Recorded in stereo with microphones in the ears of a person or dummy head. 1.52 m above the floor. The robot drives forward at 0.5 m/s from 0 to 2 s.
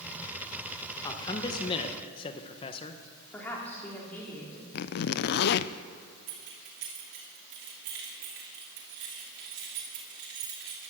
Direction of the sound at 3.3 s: 10° left (ahead or behind).